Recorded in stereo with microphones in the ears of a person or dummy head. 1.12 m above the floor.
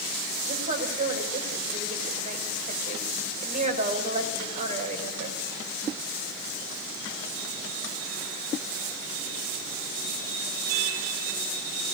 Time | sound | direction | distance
0.5 | a woman speaking | 35° right (ahead or behind) | 4.5 m